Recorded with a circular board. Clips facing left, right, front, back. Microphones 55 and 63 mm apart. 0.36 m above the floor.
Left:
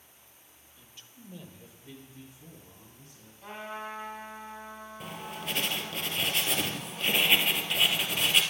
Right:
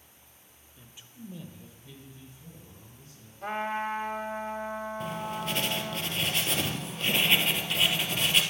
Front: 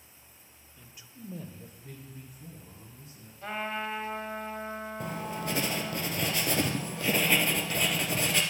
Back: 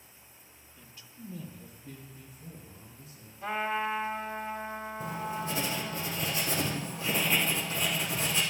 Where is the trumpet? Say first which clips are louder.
Right 8 dB, back 3 dB; 100° right, 1.1 m.